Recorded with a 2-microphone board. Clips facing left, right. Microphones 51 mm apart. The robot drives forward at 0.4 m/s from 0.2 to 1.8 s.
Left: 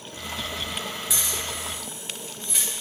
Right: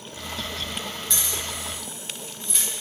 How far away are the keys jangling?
About 1.2 m.